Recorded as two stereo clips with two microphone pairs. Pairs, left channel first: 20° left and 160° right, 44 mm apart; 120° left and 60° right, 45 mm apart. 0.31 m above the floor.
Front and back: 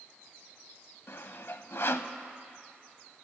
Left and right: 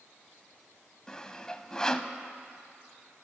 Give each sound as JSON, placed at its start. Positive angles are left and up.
{"t": 1.1, "sound": "sawing", "azimuth_deg": 45, "distance_m": 0.5}